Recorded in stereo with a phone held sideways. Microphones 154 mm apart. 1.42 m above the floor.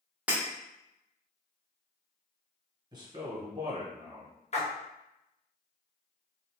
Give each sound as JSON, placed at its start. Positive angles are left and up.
{"t": 0.3, "sound": "breaking glass", "side_deg": -10, "distance_m": 0.9}
{"t": 2.9, "sound": "a man speaking", "side_deg": -25, "distance_m": 1.1}
{"t": 4.5, "sound": "a splash", "side_deg": 45, "distance_m": 0.8}